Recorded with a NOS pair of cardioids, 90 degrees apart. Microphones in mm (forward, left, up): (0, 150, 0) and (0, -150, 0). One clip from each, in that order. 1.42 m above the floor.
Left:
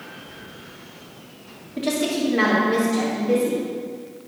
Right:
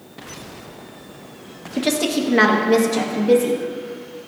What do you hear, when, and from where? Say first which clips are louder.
1.8 s a woman speaking: right 3 dB; 55° right, 1.6 m; by 3.6 s 75° right, 2 m